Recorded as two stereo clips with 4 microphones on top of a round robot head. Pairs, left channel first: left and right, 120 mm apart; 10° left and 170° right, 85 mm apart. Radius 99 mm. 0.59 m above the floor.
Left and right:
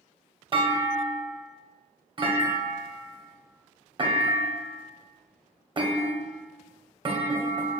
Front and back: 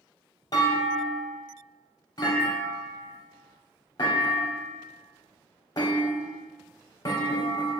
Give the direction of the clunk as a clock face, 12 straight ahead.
1 o'clock.